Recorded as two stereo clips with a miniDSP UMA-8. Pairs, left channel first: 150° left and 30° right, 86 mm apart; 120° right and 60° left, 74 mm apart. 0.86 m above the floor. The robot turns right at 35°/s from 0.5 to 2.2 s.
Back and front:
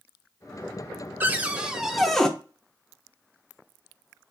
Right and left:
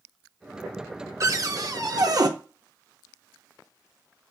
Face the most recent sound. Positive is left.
turn(degrees=65)